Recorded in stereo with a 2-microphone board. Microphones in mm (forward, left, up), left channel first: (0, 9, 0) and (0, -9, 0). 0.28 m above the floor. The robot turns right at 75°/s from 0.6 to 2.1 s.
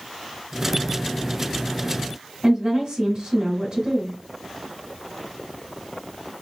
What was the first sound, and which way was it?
A woman speaking, 30° right (ahead or behind).